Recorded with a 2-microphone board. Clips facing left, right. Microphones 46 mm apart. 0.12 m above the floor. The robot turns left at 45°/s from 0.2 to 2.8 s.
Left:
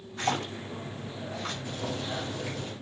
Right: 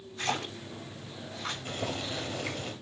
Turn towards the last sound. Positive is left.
turn(degrees=-115)